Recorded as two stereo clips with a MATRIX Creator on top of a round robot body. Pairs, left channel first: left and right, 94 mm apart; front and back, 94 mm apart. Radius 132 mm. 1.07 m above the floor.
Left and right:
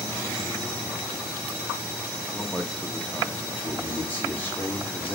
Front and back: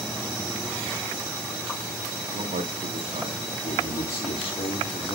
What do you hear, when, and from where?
2.3 s a man speaking: 175° left, 1.4 m
3.6 s a man speaking: 15° left, 3.5 m